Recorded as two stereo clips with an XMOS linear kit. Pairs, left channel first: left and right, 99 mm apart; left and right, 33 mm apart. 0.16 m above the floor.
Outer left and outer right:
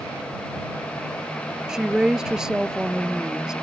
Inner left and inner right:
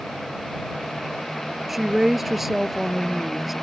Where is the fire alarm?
No fire alarm in this recording.